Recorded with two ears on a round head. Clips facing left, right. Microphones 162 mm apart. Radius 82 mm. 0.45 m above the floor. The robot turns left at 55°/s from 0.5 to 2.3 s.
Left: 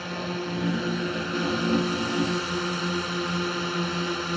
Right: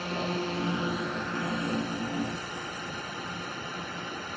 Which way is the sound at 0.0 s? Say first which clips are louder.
Even; 175° left.